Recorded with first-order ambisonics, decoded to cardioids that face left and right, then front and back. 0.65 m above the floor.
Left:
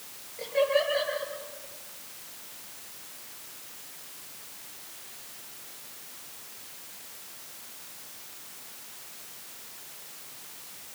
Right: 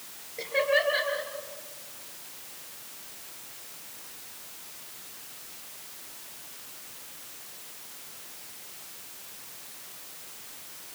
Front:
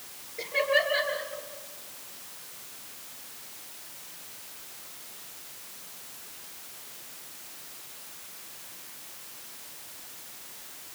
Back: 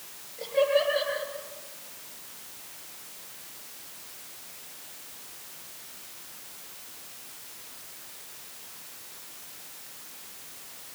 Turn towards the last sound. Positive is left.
turn(degrees=-60)